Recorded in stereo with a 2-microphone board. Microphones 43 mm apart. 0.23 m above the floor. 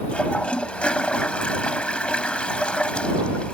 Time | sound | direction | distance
0.1 | a toilet flushing | 30° left (ahead or behind) | ?